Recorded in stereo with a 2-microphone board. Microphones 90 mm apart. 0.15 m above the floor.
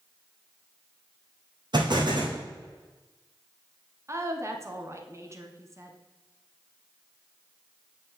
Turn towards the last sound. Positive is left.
turn(degrees=-35)  # may be behind; listen again after turning